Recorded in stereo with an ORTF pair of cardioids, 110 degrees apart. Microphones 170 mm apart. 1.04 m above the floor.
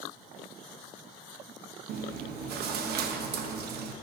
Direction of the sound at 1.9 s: 70° right.